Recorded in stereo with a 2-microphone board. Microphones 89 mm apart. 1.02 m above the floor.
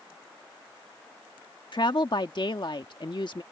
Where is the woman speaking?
55° left (ahead or behind).